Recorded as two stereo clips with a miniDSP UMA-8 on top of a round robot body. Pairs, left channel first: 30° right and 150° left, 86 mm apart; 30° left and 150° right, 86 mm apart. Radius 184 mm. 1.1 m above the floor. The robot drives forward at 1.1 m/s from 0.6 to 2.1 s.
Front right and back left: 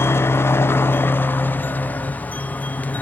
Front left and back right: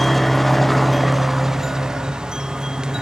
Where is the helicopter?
55° right; by 3.0 s 80° right.